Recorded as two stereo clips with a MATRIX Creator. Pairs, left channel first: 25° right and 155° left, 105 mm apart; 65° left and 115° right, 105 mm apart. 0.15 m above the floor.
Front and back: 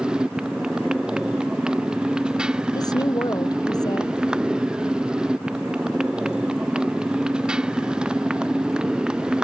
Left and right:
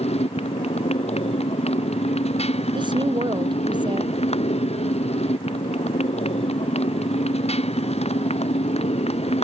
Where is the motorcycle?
75° left.